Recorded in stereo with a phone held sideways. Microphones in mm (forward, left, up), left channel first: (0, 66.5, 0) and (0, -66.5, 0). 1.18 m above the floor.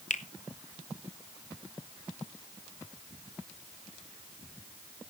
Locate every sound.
0.1 s a finger snap: 65° left (ahead or behind), 0.9 m